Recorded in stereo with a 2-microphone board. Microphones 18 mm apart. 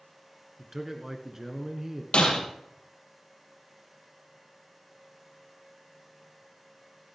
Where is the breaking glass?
75° left (ahead or behind), 3.5 m.